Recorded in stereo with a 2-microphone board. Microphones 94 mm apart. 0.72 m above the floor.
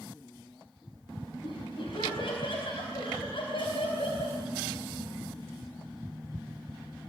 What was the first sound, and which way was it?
Laughter, 70° left (ahead or behind).